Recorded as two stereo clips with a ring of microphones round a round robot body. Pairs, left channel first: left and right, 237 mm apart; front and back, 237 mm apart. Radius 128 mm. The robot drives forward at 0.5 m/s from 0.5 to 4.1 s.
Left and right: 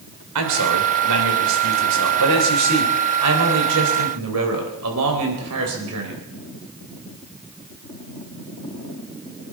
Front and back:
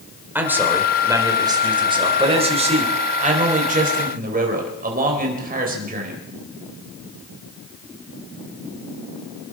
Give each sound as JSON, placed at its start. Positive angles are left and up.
{"t": 0.3, "sound": "a man speaking", "azimuth_deg": -100, "distance_m": 3.0}